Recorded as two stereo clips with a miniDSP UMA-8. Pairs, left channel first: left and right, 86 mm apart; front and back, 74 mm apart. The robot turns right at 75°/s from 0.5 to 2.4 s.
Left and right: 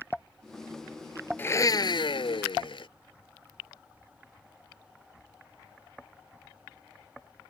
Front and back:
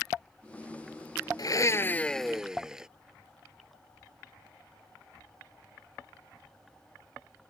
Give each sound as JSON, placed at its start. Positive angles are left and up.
{"t": 1.4, "sound": "a blender", "azimuth_deg": 25}